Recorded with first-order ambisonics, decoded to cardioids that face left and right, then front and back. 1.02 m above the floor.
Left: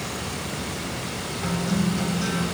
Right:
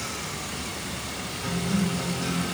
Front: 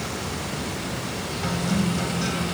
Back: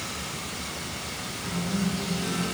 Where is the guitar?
30° left, 3 m.